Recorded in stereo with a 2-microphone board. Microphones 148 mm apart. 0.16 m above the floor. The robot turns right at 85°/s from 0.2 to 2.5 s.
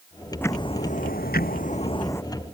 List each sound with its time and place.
0.4 s ticking: 15° left; by 2.2 s 165° left